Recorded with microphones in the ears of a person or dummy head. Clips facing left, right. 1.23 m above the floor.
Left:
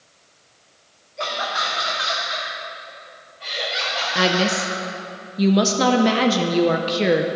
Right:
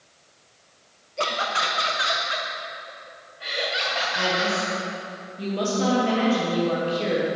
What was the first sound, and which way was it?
Laughter, 45° right (ahead or behind).